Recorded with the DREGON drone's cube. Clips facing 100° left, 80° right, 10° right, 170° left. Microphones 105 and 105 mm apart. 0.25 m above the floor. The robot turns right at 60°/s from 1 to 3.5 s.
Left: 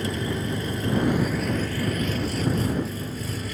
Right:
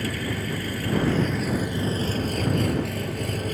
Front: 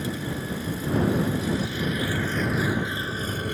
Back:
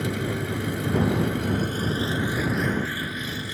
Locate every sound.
0.0 s an engine running: 165° left; by 3.5 s 45° right